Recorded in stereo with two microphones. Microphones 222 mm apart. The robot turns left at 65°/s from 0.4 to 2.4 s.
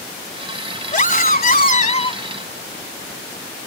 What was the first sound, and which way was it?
A scream, 120° left.